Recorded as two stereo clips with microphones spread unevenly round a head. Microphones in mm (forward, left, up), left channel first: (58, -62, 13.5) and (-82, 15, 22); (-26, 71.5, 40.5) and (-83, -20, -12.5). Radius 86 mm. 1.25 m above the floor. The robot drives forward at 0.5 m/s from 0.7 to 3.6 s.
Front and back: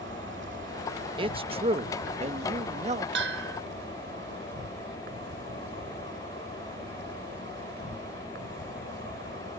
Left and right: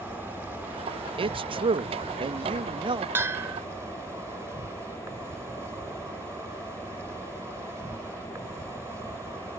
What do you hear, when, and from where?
0.0 s an insect: 160° left; by 9.6 s 165° left
1.2 s a man speaking: 150° right; by 3.0 s 160° right
3.1 s a bell: 165° left